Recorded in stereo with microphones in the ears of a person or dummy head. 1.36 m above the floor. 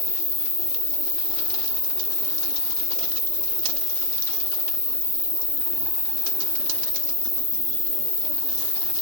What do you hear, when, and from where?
0.0 s an insect: centre (ahead or behind), 1.2 m